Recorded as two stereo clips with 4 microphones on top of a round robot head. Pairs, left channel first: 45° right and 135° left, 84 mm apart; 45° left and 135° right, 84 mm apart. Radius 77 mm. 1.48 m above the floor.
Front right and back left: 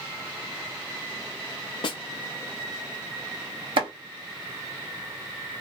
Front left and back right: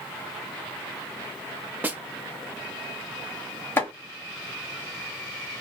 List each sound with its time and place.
1.8 s a snare drum: 65° right, 0.7 m
3.8 s chopping: 110° left, 1.0 m